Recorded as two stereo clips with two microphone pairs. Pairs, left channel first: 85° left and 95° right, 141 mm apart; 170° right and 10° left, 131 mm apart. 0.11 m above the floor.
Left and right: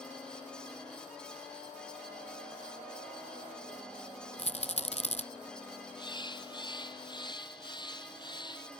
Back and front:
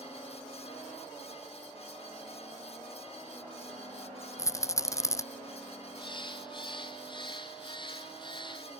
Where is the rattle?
125° left.